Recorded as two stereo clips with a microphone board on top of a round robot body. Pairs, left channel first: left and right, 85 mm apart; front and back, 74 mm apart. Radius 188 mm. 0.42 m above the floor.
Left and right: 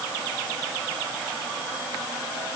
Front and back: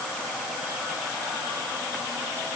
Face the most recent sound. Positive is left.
No sound to turn to.